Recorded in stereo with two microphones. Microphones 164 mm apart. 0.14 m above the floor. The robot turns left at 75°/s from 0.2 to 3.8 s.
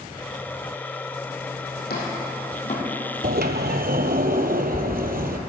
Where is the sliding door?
70° right, 0.7 m; by 5.4 s 110° right, 0.7 m.